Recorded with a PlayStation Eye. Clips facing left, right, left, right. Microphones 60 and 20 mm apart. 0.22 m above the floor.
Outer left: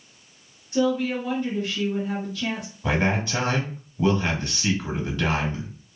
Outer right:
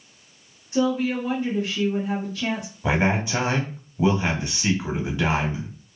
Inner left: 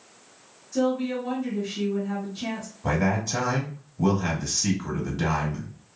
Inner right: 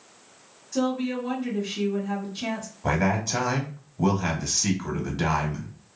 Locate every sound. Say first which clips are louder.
0.7 s a woman speaking: even, inner left 1 dB; 20° right (ahead or behind), 1.6 m
2.8 s a man speaking: outer right 1 dB, inner right 1 dB; 20° right (ahead or behind), 1.0 m